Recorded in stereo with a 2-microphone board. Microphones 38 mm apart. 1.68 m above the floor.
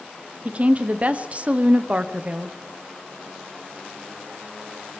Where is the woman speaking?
35° right (ahead or behind), 1.0 m.